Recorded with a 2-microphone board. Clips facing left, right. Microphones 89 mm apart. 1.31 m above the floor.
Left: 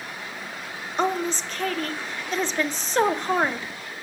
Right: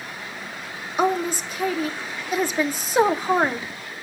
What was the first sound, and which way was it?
A woman speaking, 10° right (ahead or behind).